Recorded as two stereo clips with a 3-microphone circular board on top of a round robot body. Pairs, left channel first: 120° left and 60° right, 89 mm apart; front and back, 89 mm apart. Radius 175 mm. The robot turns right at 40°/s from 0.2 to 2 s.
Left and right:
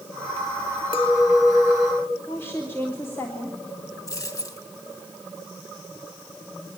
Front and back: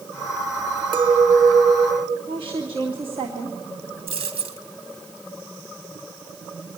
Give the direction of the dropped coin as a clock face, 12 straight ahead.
6 o'clock.